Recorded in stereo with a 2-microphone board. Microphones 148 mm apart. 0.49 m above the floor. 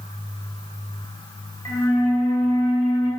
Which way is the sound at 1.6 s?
25° left (ahead or behind).